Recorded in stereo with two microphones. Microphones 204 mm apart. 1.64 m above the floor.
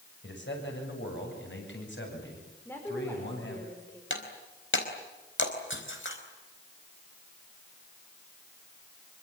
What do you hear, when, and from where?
0.2 s a man speaking: 65° left (ahead or behind), 7 m
2.6 s a woman speaking: 10° left (ahead or behind), 4.5 m
4.1 s breaking glass: 75° left (ahead or behind), 4.5 m